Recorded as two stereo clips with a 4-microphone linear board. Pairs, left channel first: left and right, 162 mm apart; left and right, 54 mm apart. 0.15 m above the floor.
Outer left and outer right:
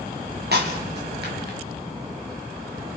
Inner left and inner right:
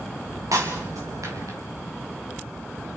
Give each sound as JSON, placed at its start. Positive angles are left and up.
{"t": 0.5, "sound": "breaking glass", "side_deg": -90, "distance_m": 5.0}